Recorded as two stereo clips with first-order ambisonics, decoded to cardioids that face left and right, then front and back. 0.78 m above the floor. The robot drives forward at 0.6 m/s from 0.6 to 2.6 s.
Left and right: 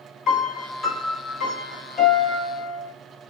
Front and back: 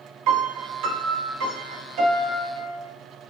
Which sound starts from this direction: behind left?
A piano, at 0.3 s.